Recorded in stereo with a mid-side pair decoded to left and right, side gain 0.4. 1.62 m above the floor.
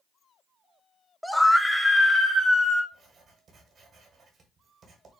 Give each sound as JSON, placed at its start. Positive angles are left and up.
{"t": 1.2, "sound": "a scream", "azimuth_deg": 0, "distance_m": 0.8}
{"t": 2.9, "sound": "writing", "azimuth_deg": -55, "distance_m": 1.9}